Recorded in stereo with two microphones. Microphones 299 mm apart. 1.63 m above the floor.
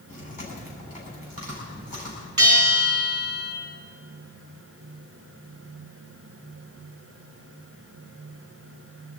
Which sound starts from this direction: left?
Chewing, at 0.1 s.